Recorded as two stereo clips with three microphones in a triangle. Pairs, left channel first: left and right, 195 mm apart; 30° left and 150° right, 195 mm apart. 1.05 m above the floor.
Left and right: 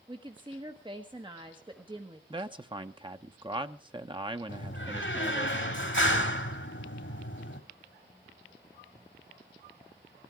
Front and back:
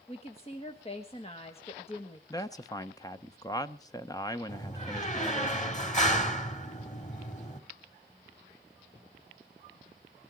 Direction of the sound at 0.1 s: 25° right.